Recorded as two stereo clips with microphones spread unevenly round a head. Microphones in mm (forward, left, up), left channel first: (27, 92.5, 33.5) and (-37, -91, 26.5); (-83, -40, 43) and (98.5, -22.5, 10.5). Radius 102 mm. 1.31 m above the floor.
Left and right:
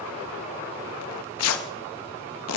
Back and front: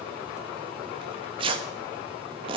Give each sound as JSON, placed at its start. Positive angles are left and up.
{"t": 1.0, "sound": "tearing paper", "azimuth_deg": 75, "distance_m": 1.1}